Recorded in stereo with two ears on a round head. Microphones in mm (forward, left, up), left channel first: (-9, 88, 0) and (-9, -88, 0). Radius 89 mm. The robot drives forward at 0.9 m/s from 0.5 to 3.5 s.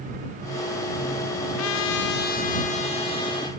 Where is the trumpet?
80° left, 0.8 m; by 3.5 s 25° left (ahead or behind), 1.9 m.